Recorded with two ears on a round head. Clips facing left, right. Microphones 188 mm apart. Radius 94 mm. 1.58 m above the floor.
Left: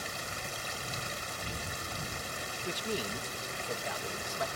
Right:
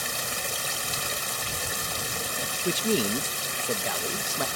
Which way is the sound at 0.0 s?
70° right (ahead or behind).